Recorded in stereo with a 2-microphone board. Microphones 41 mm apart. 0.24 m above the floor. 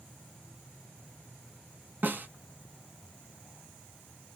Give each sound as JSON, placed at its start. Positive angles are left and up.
{"t": 2.0, "sound": "a snare drum", "side_deg": -45, "distance_m": 0.5}